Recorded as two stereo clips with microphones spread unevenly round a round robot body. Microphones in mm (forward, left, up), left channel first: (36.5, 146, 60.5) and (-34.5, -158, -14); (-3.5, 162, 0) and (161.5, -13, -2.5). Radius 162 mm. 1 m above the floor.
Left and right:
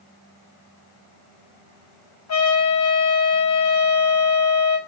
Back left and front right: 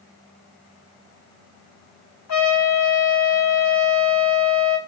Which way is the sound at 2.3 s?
120° left.